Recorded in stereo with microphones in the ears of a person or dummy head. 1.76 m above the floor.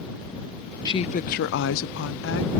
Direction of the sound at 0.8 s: 20° left (ahead or behind).